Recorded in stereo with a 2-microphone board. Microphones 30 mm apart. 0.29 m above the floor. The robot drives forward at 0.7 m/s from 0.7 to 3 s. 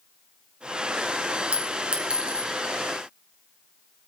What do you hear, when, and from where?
1.5 s a clink: 40° right (ahead or behind), 2 m; by 2.5 s 30° right (ahead or behind), 2.5 m